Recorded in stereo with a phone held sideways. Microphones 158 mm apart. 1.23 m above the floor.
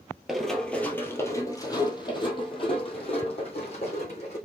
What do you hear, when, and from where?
0.3 s running footsteps: 5° right (ahead or behind), 1.5 m; by 4.4 s 45° left (ahead or behind), 3.5 m